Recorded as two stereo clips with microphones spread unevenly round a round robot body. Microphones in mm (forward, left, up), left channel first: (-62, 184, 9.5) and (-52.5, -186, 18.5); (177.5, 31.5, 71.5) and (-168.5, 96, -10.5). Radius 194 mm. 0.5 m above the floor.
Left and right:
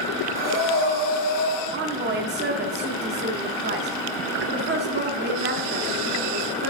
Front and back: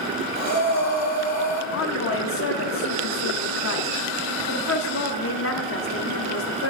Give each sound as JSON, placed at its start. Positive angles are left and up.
{"t": 0.3, "sound": "breathing", "azimuth_deg": 125, "distance_m": 2.5}
{"t": 1.7, "sound": "a woman speaking", "azimuth_deg": -55, "distance_m": 0.7}